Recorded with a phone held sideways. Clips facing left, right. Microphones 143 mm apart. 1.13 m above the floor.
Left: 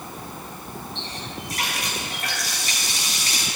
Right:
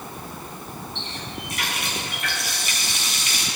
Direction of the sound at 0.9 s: 40° left (ahead or behind).